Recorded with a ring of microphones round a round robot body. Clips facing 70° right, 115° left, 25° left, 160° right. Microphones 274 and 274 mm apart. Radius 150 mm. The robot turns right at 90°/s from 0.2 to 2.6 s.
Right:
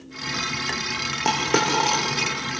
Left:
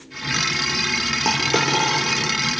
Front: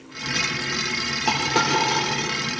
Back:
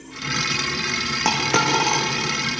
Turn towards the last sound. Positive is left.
turn(degrees=-55)